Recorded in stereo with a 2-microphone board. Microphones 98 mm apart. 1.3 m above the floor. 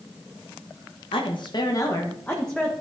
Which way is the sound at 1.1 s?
65° left (ahead or behind).